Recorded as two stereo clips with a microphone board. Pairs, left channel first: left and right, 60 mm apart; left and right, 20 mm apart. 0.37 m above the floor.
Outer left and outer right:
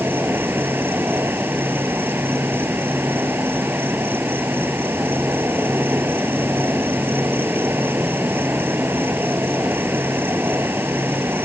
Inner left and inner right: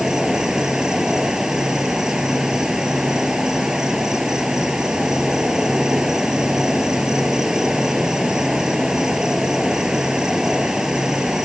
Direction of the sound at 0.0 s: 35° right (ahead or behind).